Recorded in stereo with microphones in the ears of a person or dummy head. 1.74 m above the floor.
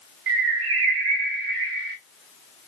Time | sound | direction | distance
0.3 | a bird | 65° right (ahead or behind) | 0.6 m